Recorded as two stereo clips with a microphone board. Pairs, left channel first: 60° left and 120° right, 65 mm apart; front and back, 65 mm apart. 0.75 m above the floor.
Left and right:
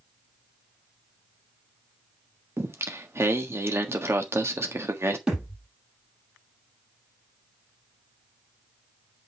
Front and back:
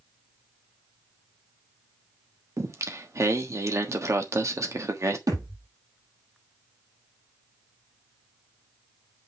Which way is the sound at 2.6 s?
160° right.